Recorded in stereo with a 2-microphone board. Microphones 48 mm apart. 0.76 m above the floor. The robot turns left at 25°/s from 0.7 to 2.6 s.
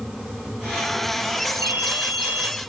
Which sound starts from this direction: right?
A ringtone, at 1.6 s.